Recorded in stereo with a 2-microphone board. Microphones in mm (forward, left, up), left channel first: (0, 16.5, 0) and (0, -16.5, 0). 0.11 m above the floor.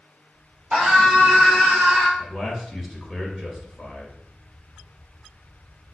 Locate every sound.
0.7 s a scream: 30° right (ahead or behind), 2.0 m; by 2.1 s 55° right (ahead or behind), 2 m
2.2 s a man speaking: 15° right (ahead or behind), 1.4 m